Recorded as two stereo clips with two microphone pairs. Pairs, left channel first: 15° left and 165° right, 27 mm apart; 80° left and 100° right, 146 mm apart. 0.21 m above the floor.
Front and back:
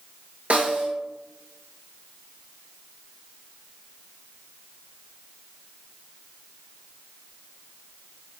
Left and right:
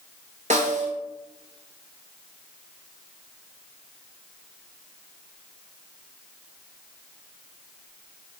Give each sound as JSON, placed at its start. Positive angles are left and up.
{"t": 0.5, "sound": "a snare drum", "azimuth_deg": -130, "distance_m": 0.7}